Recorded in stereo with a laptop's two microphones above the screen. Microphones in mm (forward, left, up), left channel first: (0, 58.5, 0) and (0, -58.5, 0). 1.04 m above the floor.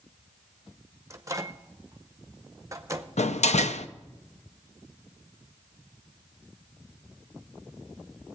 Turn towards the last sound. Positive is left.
turn(degrees=70)  # may be behind; listen again after turning